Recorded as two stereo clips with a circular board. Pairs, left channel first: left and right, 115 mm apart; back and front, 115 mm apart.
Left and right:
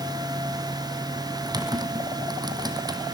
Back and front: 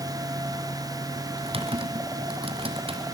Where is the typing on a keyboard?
35° right, 2 m.